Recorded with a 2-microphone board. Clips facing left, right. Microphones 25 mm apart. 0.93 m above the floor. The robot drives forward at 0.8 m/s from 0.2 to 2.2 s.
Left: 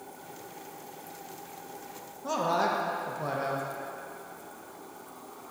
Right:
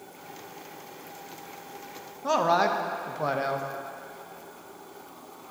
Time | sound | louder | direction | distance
2.2 | a man speaking | right 5 dB | 25° right (ahead or behind) | 0.5 m